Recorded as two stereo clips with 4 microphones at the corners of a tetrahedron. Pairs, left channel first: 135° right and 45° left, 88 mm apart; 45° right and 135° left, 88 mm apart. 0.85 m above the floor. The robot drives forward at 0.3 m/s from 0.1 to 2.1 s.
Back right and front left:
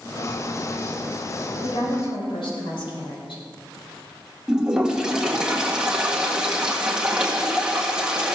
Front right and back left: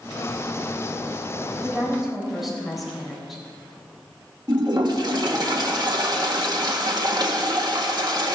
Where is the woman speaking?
135° right, 4 m.